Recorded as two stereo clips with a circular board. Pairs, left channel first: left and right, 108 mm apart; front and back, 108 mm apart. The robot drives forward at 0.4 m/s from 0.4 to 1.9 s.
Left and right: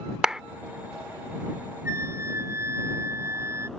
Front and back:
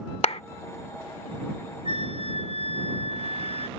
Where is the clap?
10° right.